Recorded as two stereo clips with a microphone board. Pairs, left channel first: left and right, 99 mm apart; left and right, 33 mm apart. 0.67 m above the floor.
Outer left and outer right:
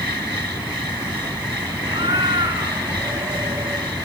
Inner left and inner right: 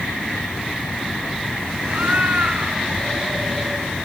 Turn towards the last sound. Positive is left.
turn(degrees=-40)  # may be behind; listen again after turning